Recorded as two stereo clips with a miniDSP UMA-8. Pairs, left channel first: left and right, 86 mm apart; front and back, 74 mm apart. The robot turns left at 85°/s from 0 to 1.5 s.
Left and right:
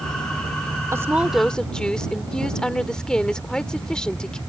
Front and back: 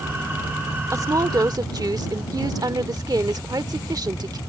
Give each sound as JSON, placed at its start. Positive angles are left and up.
{"t": 0.9, "sound": "a woman speaking", "azimuth_deg": -140}